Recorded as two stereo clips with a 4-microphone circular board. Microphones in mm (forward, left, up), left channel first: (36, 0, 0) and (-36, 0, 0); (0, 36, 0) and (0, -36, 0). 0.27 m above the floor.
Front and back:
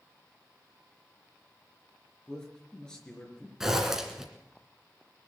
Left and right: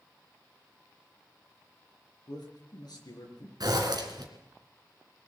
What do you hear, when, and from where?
2.3 s a man speaking: 80° left, 4 m
3.6 s a zipper: 95° right, 2 m